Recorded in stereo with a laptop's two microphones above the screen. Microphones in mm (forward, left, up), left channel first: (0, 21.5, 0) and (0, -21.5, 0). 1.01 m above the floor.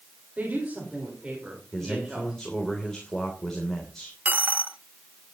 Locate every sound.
0.4 s a woman speaking: 30° right (ahead or behind), 4.5 m; by 2.4 s 10° right (ahead or behind), 4.5 m
1.7 s a man speaking: 10° left (ahead or behind), 3 m
4.2 s a dropped coin: 35° right (ahead or behind), 0.6 m